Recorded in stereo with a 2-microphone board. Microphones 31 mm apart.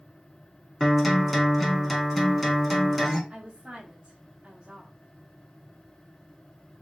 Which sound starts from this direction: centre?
A guitar, at 0.8 s.